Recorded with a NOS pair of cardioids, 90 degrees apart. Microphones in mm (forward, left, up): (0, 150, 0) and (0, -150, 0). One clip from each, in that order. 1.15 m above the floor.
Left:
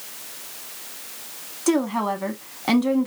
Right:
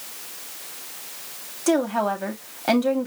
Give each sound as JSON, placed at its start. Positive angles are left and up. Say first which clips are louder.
{"t": 1.7, "sound": "a woman speaking", "louder": "right 1 dB", "azimuth_deg": 0, "distance_m": 1.2}